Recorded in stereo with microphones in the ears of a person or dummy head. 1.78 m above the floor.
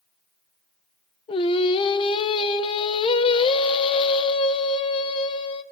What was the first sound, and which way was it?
Singing, 30° left (ahead or behind).